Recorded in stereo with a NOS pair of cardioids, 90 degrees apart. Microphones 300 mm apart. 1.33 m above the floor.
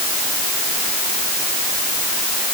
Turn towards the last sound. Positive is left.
No sound to turn to.